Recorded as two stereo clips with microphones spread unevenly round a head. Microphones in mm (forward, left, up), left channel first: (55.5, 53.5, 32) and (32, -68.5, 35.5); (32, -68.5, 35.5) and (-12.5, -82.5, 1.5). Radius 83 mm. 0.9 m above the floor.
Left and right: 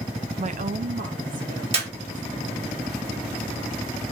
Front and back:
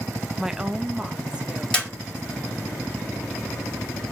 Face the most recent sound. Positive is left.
turn(degrees=-65)